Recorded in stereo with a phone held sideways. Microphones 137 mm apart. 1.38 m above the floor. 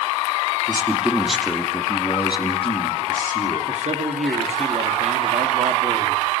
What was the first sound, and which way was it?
A man speaking, 20° right (ahead or behind).